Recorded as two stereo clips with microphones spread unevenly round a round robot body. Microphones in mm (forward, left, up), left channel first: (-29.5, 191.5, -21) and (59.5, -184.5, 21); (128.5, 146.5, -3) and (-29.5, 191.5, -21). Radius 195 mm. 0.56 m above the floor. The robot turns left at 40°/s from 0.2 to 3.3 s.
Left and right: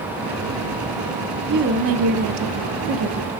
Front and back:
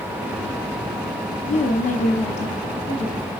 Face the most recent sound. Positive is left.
turn(degrees=-90)